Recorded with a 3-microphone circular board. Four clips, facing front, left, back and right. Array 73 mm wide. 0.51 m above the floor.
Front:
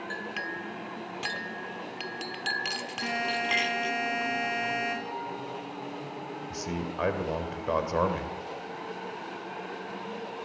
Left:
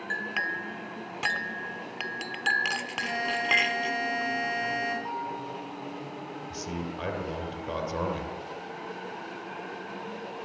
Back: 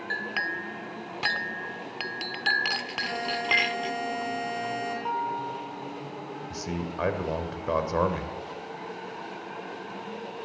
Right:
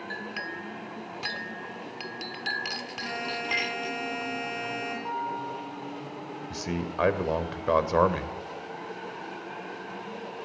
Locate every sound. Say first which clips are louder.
0.1 s a clink: left 7 dB, back 7 dB; 135° left, 0.9 m
3.0 s a buzzer: left 3 dB, front 2 dB; 5° right, 7 m
5.0 s a guitar: right 2 dB, back 6 dB; 175° left, 3.5 m
6.5 s a man speaking: right 4 dB, back 1 dB; 90° right, 2.5 m